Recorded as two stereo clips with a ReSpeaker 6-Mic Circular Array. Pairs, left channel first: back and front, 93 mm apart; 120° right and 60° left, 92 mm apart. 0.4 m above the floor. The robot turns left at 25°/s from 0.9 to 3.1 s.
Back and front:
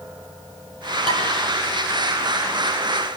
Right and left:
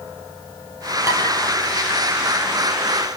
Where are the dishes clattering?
Straight ahead, 6 m; by 1.2 s 5° right, 6 m.